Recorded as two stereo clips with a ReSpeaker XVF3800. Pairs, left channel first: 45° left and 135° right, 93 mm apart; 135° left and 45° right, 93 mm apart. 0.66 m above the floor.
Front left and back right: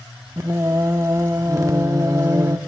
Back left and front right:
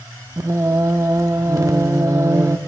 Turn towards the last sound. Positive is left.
turn(degrees=-90)